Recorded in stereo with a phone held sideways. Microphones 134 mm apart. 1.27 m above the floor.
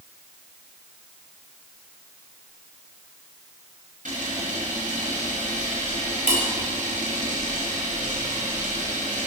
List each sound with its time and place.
4.0 s a camera shutter: 75° right (ahead or behind), 7 m